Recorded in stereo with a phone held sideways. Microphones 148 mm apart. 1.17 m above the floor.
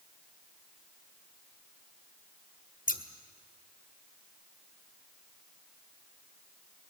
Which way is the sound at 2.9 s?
60° left (ahead or behind).